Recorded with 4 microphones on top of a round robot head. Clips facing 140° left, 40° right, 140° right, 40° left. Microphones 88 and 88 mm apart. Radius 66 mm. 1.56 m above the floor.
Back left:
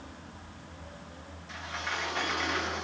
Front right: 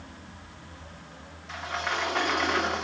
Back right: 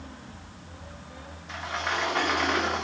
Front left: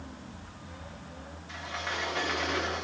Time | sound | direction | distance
1.5 | a sliding door | 90° right | 2 m